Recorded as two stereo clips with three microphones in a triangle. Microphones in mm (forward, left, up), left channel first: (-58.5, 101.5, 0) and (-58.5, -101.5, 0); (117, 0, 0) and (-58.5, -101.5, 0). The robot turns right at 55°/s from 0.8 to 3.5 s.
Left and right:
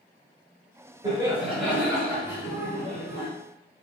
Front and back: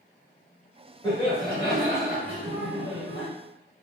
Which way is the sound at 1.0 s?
40° right.